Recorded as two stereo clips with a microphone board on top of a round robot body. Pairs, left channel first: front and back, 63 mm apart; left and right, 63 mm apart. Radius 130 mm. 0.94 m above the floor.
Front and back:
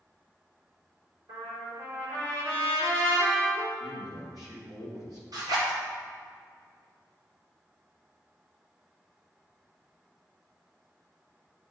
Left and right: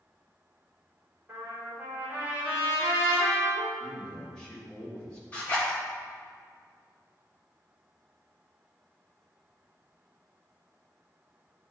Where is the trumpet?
155° right, 3 m.